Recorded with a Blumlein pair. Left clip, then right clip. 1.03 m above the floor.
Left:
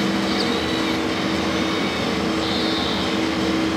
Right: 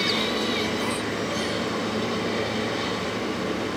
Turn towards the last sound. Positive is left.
turn(degrees=70)